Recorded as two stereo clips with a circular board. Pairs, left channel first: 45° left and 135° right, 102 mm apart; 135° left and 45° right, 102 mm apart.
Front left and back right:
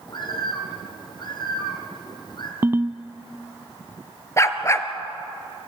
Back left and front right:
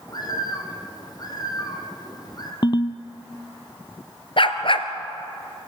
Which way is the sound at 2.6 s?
160° left.